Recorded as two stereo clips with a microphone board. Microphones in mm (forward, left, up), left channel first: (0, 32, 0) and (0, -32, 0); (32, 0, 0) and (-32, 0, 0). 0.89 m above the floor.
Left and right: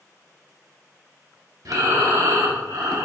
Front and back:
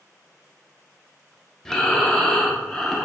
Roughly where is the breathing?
Right.